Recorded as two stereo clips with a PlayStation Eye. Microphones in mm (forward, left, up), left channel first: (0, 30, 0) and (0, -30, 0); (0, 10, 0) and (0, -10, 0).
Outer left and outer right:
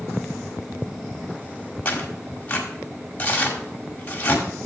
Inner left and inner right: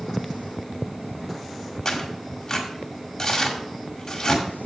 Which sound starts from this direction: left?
Tearing paper, at 1.9 s.